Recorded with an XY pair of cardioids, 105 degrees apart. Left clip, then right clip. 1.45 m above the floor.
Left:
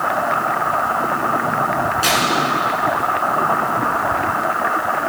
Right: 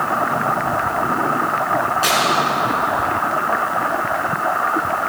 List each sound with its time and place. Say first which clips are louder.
2.0 s tearing paper: left 1 dB; 10° left, 6.5 m